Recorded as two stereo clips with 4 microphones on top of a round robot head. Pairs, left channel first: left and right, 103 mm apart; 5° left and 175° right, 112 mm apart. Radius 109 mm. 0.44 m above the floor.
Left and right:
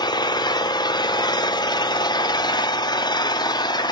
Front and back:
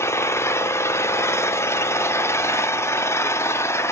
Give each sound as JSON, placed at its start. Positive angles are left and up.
{"t": 0.0, "sound": "an engine running", "azimuth_deg": 65, "distance_m": 1.0}